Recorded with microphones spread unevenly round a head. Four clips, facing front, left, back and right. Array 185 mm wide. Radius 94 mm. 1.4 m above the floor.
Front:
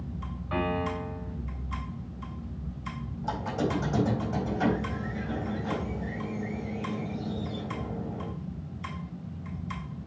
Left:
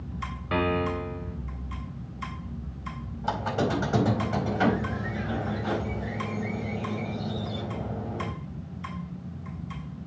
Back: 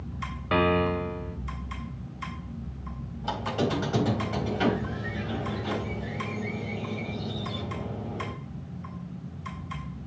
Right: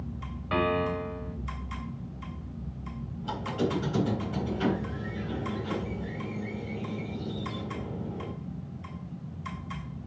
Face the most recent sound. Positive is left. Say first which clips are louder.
# left 3 dB, back 2 dB
turn(degrees=100)